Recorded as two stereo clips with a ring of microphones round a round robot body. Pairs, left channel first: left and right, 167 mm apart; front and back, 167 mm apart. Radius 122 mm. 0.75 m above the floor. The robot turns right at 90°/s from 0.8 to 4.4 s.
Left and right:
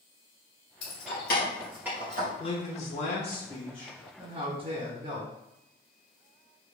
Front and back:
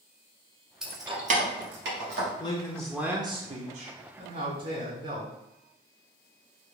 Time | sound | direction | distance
0.8 | keys jangling | 90° left | 0.7 m
2.4 | a man speaking | 50° left | 0.5 m